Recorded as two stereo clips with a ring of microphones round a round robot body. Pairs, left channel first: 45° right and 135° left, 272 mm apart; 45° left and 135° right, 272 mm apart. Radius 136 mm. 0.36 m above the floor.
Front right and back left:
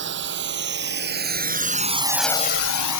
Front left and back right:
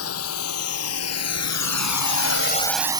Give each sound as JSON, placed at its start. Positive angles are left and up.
{"t": 0.0, "sound": "a drone", "azimuth_deg": 85}